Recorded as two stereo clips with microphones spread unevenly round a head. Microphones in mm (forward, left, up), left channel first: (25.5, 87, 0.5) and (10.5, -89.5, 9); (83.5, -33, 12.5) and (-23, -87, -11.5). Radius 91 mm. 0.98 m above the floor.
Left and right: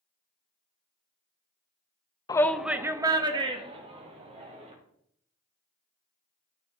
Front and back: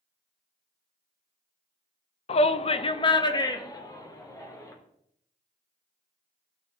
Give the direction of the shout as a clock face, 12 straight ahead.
11 o'clock.